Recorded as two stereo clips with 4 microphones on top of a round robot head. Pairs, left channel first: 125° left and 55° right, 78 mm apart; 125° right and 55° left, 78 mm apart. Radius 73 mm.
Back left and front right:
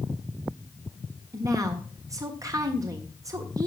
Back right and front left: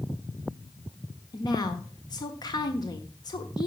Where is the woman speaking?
95° right, 1.6 m.